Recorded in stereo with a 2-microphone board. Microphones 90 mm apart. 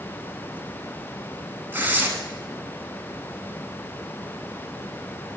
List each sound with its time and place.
1.7 s tearing paper: 20° right (ahead or behind), 0.9 m